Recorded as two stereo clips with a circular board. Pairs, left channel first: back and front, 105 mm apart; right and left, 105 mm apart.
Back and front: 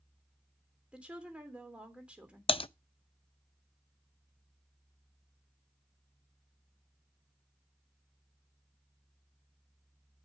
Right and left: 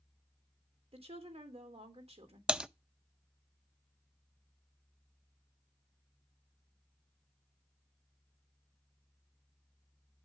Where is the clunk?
No clunk in this recording.